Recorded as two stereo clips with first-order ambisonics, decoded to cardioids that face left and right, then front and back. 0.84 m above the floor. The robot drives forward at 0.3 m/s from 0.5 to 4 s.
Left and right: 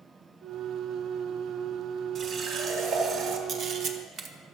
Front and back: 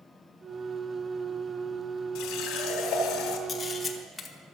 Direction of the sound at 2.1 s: 35° right.